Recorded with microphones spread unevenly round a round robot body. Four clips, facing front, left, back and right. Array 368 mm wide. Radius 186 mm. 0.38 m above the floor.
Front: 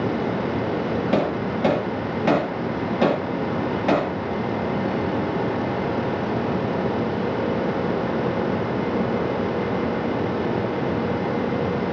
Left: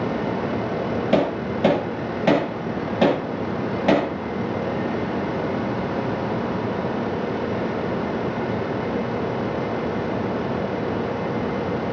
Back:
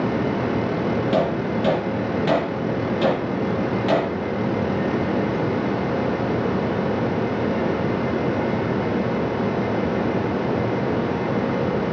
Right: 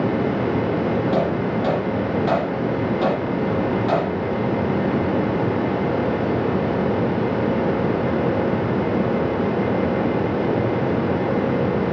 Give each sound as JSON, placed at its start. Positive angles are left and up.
{"t": 1.1, "sound": "hammering", "azimuth_deg": 75, "distance_m": 8.0}